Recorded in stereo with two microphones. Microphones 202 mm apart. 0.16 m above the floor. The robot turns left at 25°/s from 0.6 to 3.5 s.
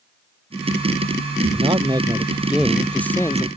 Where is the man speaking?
150° right; by 3.5 s 160° left.